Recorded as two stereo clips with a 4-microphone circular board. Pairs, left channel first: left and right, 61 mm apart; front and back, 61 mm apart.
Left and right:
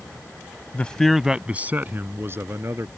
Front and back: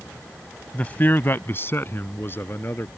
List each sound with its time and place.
0.7 s a man speaking: 50° left; by 2.9 s 50° right